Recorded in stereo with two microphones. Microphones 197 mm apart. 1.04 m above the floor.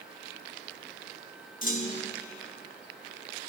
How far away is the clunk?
About 0.7 m.